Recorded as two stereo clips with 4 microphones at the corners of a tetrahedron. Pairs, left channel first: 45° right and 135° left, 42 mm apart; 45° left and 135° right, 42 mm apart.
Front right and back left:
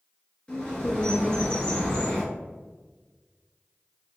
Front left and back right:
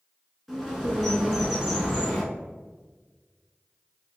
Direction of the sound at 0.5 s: 45° right.